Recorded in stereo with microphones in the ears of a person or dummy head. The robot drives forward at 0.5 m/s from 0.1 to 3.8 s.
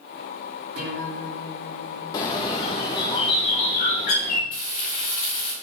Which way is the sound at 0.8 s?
70° right (ahead or behind).